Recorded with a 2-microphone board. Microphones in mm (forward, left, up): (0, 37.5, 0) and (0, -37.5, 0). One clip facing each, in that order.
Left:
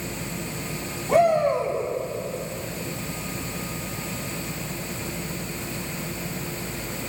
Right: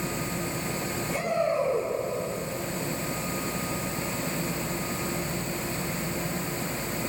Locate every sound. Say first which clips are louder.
1.1 s a shout: left 9 dB; 65° left (ahead or behind), 9 m